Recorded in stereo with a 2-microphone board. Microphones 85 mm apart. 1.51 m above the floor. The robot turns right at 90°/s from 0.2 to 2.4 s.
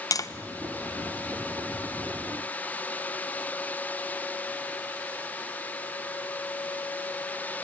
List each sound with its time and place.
0.1 s tapping: 40° left (ahead or behind), 0.9 m; by 0.3 s 35° left (ahead or behind), 0.9 m